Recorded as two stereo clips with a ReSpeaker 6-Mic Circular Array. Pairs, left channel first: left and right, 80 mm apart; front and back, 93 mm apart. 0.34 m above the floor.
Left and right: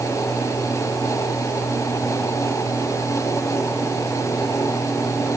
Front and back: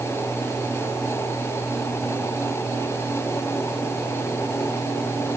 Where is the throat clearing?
No throat clearing in this recording.